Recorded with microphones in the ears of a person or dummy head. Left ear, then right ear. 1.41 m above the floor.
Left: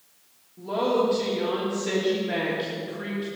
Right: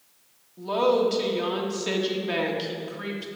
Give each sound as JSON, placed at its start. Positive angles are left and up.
{"t": 0.6, "sound": "a woman speaking", "side_deg": -40, "distance_m": 2.5}